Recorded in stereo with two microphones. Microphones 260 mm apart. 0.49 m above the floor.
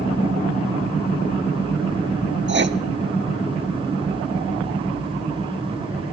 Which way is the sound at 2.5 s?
45° right (ahead or behind).